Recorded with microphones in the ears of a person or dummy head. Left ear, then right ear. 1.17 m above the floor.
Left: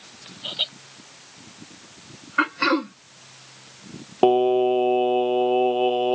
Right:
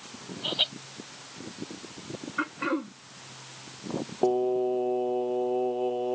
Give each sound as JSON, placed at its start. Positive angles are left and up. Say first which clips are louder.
{"t": 0.4, "sound": "laughter", "louder": "even", "side_deg": -30}
{"t": 2.4, "sound": "throat clearing", "louder": "left 9 dB", "side_deg": 45}
{"t": 4.2, "sound": "singing", "louder": "left 8 dB", "side_deg": 85}